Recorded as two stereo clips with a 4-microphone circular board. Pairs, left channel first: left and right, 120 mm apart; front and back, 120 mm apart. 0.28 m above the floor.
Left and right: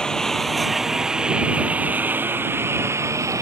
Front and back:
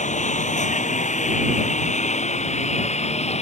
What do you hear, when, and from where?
0.0 s a lawn mower: 5° left; by 3.4 s 25° right